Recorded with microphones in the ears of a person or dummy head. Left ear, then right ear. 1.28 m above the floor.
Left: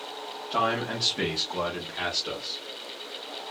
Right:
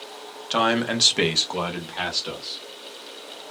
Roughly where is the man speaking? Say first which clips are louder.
Right 5 dB; right.